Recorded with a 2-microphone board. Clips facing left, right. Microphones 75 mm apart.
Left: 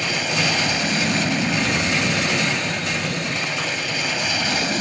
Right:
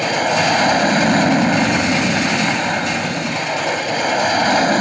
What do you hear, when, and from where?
0.0 s an aircraft: 45° right (ahead or behind)